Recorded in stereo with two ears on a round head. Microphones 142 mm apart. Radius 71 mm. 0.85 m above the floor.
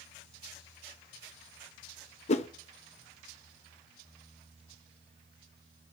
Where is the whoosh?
40° left (ahead or behind), 0.5 m.